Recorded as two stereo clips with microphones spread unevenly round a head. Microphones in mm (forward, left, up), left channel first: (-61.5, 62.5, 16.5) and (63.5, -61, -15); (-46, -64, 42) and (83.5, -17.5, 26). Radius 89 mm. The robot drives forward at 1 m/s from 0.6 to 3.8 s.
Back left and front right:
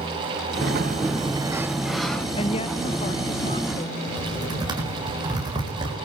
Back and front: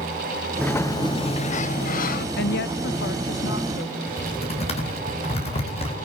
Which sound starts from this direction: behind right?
Typing on a keyboard, at 4.1 s.